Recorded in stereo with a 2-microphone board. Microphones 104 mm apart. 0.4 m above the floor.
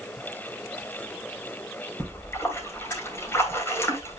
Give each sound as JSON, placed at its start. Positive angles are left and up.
{"t": 2.0, "sound": "a splash", "side_deg": 20, "distance_m": 2.5}